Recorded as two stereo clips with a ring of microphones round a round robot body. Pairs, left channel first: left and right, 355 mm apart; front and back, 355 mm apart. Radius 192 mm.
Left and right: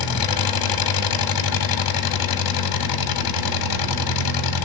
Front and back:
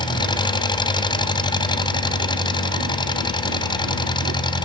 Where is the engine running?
75° left, 2.5 m.